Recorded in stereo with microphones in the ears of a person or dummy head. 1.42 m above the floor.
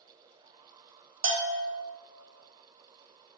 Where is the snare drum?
No snare drum in this recording.